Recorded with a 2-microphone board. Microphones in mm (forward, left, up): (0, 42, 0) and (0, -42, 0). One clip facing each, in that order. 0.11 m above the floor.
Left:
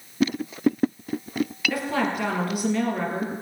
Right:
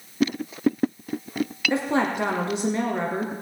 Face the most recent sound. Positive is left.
turn(degrees=-25)  # may be behind; listen again after turning